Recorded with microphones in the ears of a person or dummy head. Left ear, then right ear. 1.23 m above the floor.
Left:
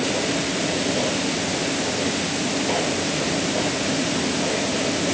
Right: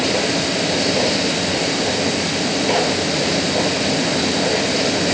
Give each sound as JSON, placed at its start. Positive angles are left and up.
{"t": 0.0, "sound": "a machine running", "side_deg": -85}